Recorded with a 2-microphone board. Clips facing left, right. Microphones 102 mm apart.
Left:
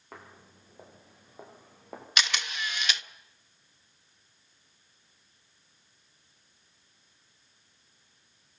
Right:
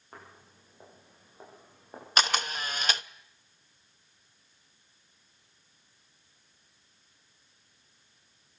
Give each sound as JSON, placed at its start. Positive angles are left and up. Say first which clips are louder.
{"t": 0.1, "sound": "footsteps", "louder": "left 2 dB", "side_deg": 80, "distance_m": 7.5}
{"t": 2.2, "sound": "a camera shutter", "louder": "right 4 dB", "side_deg": -40, "distance_m": 0.6}